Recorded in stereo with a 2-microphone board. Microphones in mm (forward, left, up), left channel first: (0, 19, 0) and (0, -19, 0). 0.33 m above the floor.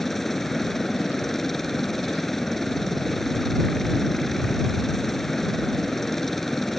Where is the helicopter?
5° left (ahead or behind).